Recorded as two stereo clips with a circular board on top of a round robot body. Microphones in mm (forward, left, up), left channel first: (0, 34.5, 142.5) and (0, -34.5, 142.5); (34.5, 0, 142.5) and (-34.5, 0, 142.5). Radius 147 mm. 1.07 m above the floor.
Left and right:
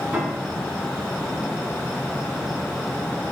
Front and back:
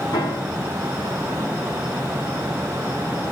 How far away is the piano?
About 3.5 m.